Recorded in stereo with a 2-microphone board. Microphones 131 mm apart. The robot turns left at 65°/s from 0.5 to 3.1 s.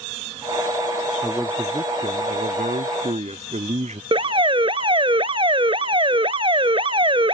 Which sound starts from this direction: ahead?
A man speaking, at 1.2 s.